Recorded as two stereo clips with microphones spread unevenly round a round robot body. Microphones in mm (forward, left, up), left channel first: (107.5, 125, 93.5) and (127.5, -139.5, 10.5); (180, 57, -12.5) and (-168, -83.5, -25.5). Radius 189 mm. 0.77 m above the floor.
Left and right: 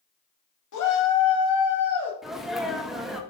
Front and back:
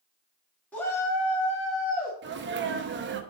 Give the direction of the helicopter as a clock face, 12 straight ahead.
I don't hear a helicopter.